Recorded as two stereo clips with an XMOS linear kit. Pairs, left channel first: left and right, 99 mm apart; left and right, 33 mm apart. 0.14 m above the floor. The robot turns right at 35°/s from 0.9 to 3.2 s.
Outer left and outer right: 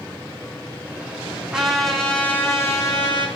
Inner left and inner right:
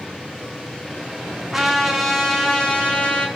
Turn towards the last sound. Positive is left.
turn(degrees=50)